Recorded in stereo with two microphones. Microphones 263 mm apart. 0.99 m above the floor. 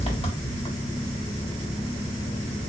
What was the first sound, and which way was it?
An engine running, 20° left (ahead or behind).